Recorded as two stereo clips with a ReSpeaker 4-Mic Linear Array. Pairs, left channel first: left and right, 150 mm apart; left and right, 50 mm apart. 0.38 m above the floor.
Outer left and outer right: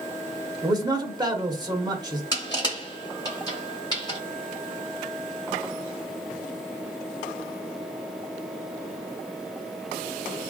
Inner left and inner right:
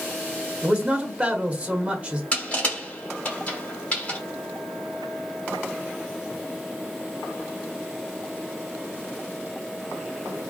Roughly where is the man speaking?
Right.